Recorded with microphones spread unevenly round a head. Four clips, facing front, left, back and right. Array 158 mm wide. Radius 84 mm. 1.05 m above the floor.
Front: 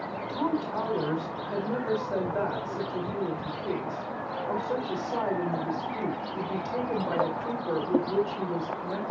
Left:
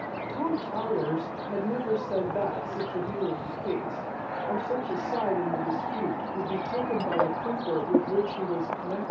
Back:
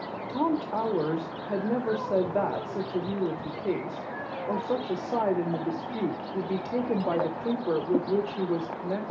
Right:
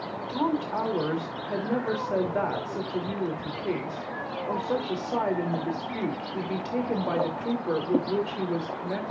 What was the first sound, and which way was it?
A woman speaking, 170° right.